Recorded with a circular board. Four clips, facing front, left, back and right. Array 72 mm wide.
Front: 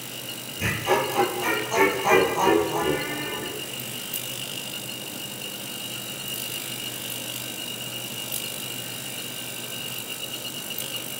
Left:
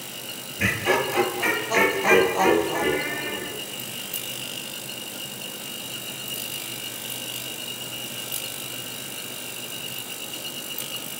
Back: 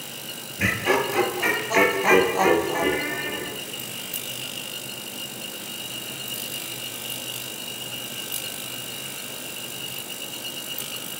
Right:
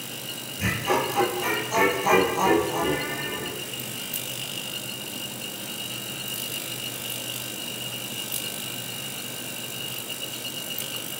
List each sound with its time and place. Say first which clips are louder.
0.6 s laughter: left 2 dB, back 1 dB; 140° left, 7.5 m